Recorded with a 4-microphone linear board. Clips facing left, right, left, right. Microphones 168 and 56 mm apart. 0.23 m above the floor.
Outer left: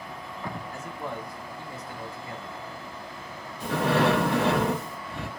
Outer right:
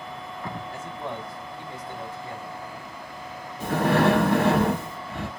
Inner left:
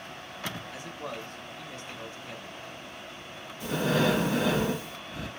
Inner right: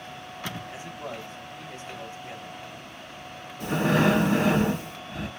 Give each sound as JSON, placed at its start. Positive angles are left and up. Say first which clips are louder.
{"t": 0.7, "sound": "a man speaking", "louder": "outer right 1 dB, inner right 1 dB", "side_deg": -30, "distance_m": 2.0}
{"t": 3.6, "sound": "breathing", "louder": "outer right 2 dB, inner right 4 dB", "side_deg": -60, "distance_m": 2.5}